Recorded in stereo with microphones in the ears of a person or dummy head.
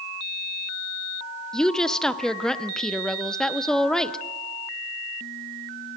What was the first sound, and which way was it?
A woman speaking, 5° left (ahead or behind).